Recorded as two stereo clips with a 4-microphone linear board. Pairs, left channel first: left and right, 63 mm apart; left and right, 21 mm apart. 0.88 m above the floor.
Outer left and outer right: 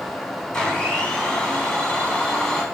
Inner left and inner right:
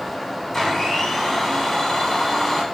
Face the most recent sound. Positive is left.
turn(degrees=15)  # may be behind; listen again after turning